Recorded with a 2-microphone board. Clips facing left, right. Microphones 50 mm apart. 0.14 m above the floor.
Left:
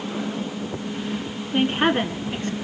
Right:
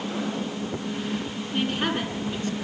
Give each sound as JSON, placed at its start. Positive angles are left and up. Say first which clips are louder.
{"t": 1.5, "sound": "a woman speaking", "louder": "left 6 dB", "side_deg": 30, "distance_m": 1.3}